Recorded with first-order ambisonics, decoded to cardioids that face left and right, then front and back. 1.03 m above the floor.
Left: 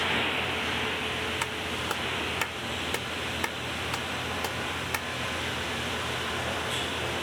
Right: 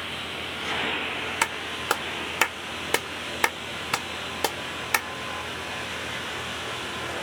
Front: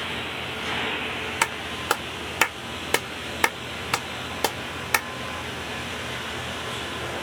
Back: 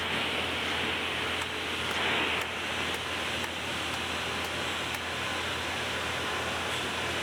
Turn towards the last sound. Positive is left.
turn(degrees=-30)